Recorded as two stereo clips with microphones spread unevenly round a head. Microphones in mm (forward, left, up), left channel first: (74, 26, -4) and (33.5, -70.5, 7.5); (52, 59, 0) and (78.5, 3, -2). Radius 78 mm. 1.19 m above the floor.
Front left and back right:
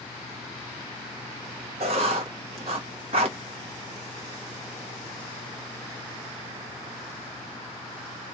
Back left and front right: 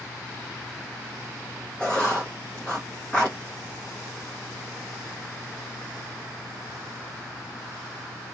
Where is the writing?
160° right, 0.5 m.